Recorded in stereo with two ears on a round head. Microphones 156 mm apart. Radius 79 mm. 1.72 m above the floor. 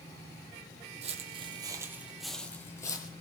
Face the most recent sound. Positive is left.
turn(degrees=25)  # may be behind; listen again after turning